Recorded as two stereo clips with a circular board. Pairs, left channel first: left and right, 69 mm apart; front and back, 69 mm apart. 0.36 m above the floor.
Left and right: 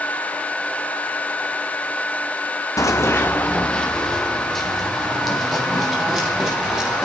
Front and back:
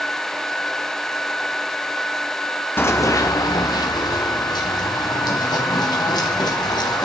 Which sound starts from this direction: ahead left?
Running footsteps, at 2.8 s.